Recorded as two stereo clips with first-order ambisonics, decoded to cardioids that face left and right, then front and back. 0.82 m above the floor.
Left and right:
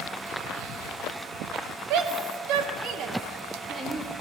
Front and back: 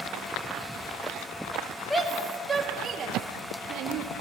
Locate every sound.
1.9 s a shout: 85° right, 1.4 m; by 4.2 s 175° right, 1.5 m